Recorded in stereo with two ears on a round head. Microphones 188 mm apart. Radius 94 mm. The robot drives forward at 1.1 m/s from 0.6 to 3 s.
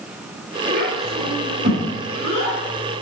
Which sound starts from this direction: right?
A child speaking, at 0.7 s.